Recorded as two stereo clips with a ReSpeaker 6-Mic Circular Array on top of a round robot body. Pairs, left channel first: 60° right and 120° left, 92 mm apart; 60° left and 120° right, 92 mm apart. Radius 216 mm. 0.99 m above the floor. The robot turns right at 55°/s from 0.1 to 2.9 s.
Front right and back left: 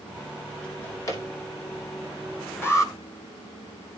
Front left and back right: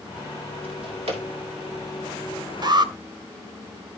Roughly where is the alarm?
Behind right.